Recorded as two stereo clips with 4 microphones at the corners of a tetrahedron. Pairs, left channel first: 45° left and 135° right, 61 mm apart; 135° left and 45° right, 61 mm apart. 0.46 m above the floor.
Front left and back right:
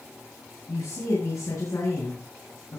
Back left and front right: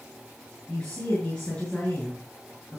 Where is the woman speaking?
60° left, 7 m.